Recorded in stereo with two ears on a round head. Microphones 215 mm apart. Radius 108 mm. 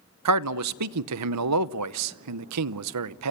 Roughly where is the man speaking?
Right.